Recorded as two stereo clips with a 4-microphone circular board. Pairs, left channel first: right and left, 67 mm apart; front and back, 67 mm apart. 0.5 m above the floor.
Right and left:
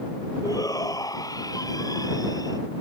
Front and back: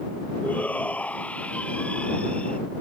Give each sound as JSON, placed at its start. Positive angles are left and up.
{"t": 0.4, "sound": "a shout", "azimuth_deg": -65}